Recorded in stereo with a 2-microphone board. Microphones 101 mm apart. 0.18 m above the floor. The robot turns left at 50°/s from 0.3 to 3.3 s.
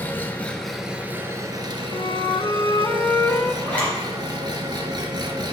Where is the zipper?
15° left (ahead or behind), 3 m.